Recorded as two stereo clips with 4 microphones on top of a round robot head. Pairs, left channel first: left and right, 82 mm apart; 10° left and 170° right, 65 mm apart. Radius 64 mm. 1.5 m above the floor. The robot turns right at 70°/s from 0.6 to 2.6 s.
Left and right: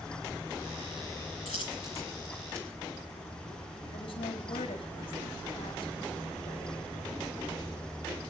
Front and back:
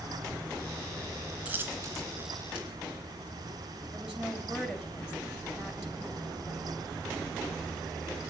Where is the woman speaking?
105° left, 4.5 m.